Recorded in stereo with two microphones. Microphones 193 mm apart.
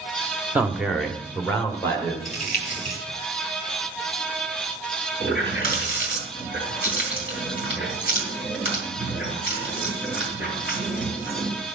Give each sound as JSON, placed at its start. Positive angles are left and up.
{"t": 0.6, "sound": "a man speaking", "side_deg": -10, "distance_m": 1.1}
{"t": 2.2, "sound": "crumpling", "side_deg": 45, "distance_m": 3.0}
{"t": 5.2, "sound": "a running tap", "side_deg": 50, "distance_m": 3.0}